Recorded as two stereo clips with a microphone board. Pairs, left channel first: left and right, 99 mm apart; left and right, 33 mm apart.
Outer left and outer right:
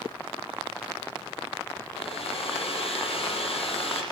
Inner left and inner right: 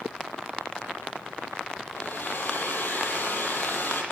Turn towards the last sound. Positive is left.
turn(degrees=75)  # may be behind; listen again after turning